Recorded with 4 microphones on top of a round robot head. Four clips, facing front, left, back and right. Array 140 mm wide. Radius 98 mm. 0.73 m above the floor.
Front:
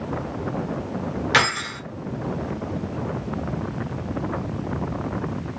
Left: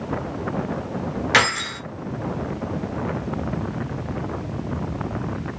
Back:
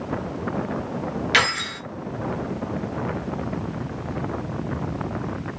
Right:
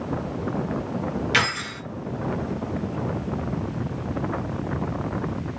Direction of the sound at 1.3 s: 50° left.